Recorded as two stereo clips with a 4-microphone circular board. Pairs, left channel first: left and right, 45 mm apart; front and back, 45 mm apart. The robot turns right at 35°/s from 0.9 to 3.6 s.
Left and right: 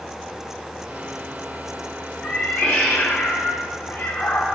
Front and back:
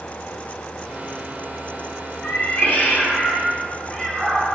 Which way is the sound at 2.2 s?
20° left.